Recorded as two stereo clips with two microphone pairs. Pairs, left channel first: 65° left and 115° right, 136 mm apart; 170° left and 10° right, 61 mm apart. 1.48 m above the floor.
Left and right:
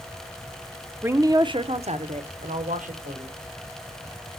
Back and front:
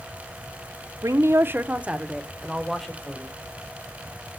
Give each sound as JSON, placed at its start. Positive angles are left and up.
{"t": 1.0, "sound": "a woman speaking", "azimuth_deg": -40, "distance_m": 0.7}